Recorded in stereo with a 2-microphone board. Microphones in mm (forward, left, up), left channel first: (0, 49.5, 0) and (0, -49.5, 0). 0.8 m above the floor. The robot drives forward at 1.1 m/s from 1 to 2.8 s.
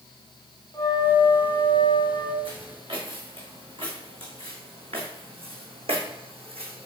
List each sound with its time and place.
0.7 s a flute: 40° left (ahead or behind), 1.5 m; by 2.4 s 55° left (ahead or behind), 1.2 m
2.5 s footsteps: 65° right (ahead or behind), 3.5 m; by 6.9 s 70° right (ahead or behind), 2 m